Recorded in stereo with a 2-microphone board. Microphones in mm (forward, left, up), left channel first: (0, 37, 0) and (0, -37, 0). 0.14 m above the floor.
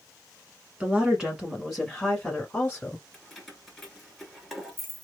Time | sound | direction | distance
0.8 | a woman speaking | 15° right (ahead or behind) | 1.5 m
3.1 | keys jangling | centre (ahead or behind) | 1.5 m